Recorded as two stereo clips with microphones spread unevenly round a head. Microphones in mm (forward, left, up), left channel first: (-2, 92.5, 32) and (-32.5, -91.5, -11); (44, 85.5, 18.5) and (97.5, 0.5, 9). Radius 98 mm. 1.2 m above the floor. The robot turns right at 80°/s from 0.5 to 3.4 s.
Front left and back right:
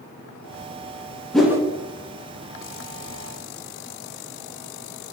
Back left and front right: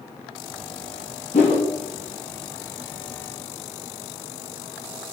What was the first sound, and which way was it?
A whoosh, 160° left.